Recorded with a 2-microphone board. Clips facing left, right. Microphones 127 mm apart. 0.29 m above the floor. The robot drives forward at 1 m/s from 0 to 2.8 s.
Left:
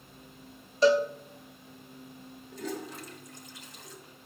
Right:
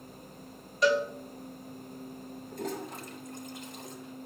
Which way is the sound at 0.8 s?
30° left (ahead or behind).